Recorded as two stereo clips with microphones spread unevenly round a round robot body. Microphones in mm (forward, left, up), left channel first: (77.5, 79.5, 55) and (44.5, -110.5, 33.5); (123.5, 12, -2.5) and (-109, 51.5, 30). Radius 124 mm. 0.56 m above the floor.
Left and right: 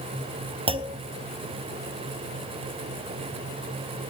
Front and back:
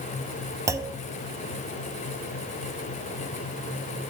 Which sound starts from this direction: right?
A clunk, at 0.7 s.